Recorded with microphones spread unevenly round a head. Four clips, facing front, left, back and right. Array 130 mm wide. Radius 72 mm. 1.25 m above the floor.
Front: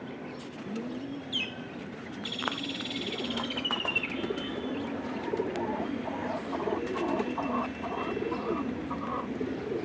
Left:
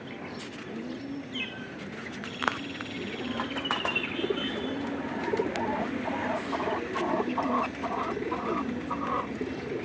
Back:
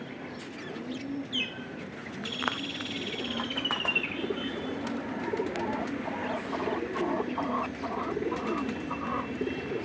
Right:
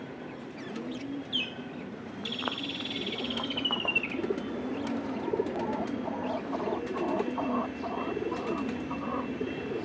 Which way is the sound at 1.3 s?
75° right.